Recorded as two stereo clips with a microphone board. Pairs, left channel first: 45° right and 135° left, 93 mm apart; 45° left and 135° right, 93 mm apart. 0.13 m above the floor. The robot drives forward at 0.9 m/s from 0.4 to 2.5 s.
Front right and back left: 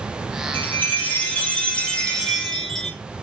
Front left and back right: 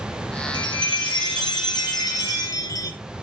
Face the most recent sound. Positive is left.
turn(degrees=40)